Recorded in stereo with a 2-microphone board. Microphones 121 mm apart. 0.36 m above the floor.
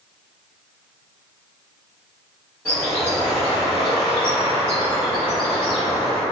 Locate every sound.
2.6 s a bird: 15° left (ahead or behind), 1.7 m